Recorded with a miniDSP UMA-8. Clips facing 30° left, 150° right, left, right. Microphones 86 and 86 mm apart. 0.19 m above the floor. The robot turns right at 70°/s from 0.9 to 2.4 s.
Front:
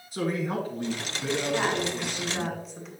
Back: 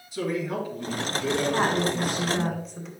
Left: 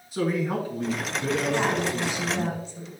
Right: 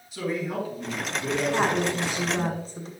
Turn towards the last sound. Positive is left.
turn(degrees=-60)